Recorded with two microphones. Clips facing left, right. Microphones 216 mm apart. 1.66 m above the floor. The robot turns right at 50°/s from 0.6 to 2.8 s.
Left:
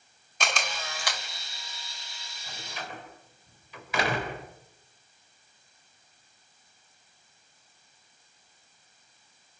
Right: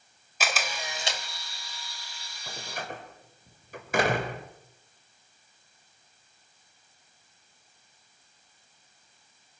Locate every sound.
0.4 s a camera shutter: 5° right (ahead or behind), 2.5 m; by 1.2 s 30° right (ahead or behind), 2.5 m
2.5 s a door slam: 65° right (ahead or behind), 4.5 m; by 4.4 s 50° right (ahead or behind), 4.5 m